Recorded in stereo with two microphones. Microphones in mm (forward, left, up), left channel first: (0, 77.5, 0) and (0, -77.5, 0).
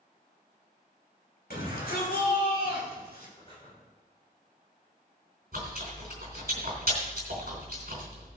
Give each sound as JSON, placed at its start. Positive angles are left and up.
{"t": 1.5, "sound": "a shout", "side_deg": 75, "distance_m": 6.5}
{"t": 3.4, "sound": "breathing", "side_deg": 35, "distance_m": 4.0}
{"t": 5.5, "sound": "chewing", "side_deg": -70, "distance_m": 3.5}